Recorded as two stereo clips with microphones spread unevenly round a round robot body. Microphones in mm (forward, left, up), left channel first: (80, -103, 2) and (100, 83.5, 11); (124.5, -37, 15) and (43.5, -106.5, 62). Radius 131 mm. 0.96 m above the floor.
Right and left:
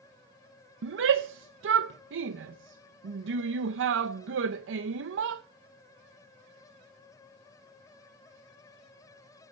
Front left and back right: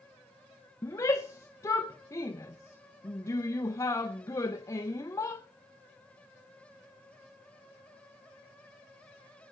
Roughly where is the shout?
Left.